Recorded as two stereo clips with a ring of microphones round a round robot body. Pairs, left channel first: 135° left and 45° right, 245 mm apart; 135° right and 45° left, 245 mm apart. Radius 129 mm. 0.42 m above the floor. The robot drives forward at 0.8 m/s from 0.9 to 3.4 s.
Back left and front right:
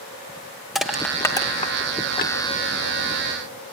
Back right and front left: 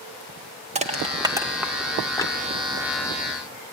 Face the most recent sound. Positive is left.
turn(degrees=170)